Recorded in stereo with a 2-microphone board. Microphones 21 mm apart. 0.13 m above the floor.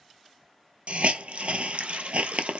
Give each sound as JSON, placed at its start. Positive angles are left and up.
{"t": 0.9, "sound": "a hiss", "side_deg": -75, "distance_m": 0.6}